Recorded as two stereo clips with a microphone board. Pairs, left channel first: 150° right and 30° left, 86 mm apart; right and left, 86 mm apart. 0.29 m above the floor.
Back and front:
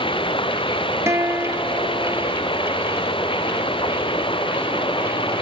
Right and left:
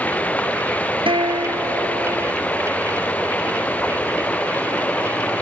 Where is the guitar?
90° left.